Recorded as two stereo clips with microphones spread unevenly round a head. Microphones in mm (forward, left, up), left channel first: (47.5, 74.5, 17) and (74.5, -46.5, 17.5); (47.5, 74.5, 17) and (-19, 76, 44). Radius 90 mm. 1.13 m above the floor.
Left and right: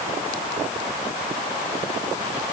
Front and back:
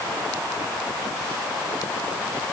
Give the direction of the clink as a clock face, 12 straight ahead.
No clink in this recording.